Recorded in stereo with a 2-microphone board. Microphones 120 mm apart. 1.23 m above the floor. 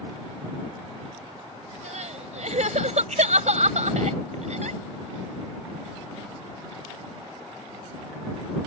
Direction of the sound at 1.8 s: 75° right (ahead or behind).